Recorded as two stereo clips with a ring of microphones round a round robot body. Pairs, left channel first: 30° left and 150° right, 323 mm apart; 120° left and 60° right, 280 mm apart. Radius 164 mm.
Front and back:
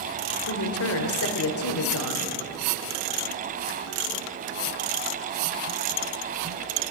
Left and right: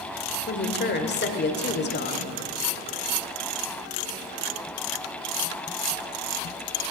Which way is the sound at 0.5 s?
70° left.